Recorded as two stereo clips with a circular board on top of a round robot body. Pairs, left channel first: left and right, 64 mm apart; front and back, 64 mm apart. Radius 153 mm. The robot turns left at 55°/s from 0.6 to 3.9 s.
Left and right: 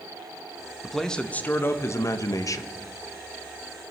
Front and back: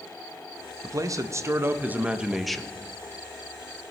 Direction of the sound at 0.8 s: Straight behind.